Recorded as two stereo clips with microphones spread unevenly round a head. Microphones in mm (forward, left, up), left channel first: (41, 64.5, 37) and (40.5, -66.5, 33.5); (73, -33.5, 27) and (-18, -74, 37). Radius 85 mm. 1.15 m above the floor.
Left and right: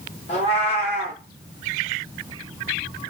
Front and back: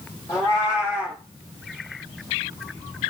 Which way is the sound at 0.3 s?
85° left.